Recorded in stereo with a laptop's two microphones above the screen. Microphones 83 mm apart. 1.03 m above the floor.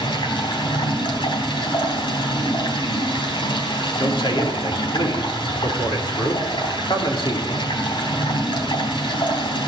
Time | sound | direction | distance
0.0 | running water | 80° left | 3.5 m
4.0 | a man speaking | 75° left (ahead or behind) | 3 m